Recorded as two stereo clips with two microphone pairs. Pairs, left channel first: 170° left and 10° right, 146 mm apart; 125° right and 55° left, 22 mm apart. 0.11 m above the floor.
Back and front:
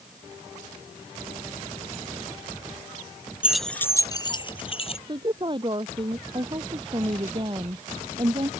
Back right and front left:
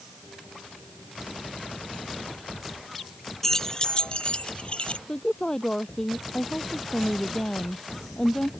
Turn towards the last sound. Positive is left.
turn(degrees=-65)